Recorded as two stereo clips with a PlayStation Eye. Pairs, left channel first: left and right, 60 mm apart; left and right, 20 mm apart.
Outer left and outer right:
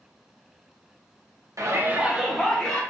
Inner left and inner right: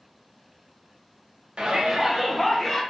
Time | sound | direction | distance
1.6 | a shout | 55° right (ahead or behind) | 0.6 m